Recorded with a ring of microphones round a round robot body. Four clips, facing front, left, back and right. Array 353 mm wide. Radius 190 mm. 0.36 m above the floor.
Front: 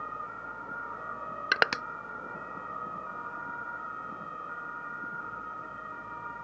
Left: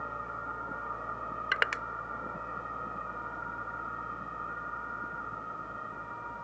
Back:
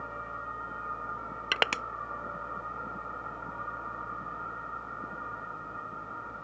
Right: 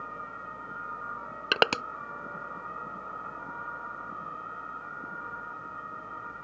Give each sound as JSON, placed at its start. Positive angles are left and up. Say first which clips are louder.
{"t": 1.5, "sound": "crushing", "louder": "right 7 dB, front 3 dB", "azimuth_deg": -85}